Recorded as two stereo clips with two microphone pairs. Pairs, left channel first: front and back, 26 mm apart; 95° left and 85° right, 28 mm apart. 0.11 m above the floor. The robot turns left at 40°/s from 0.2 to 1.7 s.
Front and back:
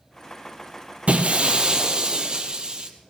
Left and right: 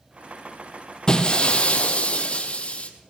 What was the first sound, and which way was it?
Breaking glass, 160° left.